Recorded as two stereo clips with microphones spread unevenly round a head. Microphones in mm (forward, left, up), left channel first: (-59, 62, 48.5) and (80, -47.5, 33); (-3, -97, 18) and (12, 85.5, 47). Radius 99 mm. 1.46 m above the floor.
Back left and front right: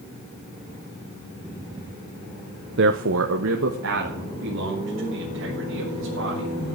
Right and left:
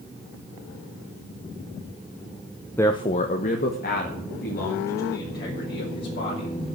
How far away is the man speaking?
About 0.6 m.